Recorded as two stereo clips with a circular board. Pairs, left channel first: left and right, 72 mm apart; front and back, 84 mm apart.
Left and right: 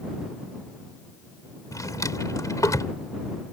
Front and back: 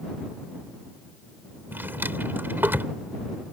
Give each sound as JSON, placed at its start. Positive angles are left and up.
{"t": 1.7, "sound": "a drawer", "azimuth_deg": 115}